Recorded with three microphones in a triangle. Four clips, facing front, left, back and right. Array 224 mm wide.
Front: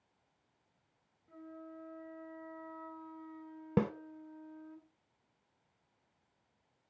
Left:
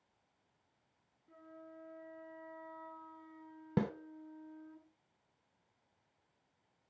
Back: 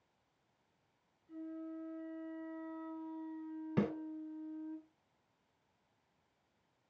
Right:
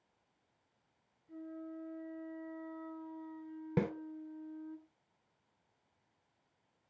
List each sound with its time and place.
1.3 s a flute: 25° left, 1.9 m
3.8 s a snare drum: 20° left, 1.3 m